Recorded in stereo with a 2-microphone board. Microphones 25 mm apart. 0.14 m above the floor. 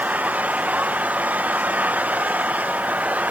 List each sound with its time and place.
0.0 s an engine running: 85° right